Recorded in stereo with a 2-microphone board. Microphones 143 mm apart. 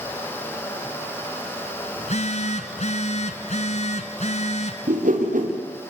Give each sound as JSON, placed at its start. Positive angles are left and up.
{"t": 2.0, "sound": "a phone buzzing", "side_deg": 55, "distance_m": 1.7}
{"t": 4.9, "sound": "a whoosh", "side_deg": -75, "distance_m": 5.0}